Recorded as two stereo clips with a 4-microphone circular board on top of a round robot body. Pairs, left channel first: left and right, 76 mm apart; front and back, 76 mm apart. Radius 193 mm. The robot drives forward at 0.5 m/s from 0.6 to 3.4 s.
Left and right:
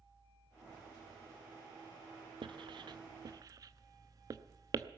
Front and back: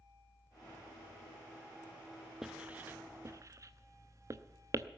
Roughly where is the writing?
Right.